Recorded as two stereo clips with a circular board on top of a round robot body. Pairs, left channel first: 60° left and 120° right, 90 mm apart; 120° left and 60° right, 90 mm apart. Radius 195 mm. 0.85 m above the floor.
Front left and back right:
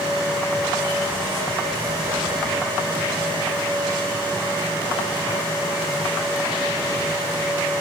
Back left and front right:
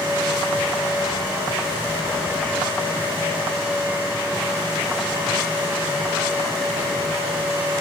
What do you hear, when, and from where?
Only background noise.